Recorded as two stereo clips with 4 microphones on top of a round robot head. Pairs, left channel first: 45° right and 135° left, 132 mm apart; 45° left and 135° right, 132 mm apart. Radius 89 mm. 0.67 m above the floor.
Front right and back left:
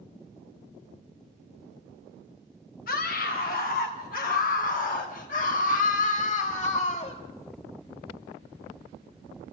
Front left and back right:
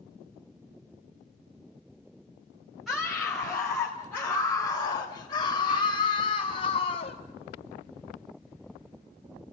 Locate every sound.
2.9 s a scream: 45° right, 3.5 m; by 7.2 s straight ahead, 3 m